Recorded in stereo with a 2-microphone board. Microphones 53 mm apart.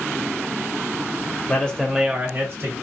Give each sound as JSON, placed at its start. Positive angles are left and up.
{"t": 1.5, "sound": "a man speaking", "side_deg": 25, "distance_m": 1.0}